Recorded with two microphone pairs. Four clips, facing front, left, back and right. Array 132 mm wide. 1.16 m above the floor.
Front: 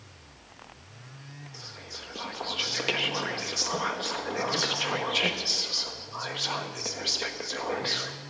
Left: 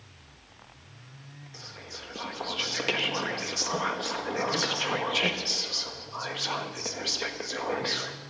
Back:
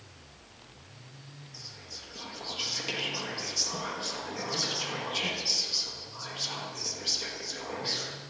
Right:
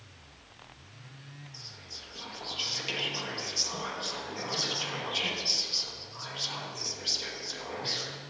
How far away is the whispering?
About 1.0 m.